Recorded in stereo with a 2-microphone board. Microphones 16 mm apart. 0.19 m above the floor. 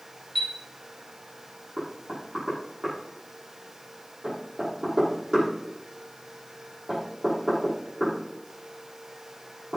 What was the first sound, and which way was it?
A chime, 5° right (ahead or behind).